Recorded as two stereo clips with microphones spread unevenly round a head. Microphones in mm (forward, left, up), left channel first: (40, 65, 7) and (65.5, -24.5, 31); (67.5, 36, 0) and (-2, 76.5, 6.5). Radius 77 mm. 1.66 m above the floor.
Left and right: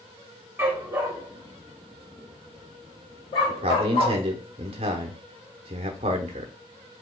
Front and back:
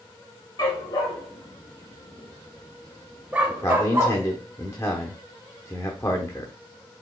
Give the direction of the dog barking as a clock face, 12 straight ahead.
1 o'clock.